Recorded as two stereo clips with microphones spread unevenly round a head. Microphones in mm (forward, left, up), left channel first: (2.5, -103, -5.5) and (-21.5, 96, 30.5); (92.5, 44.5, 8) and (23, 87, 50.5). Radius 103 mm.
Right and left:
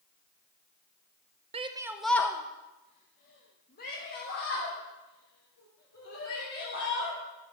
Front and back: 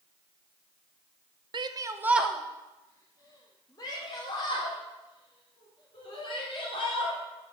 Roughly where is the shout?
Behind left.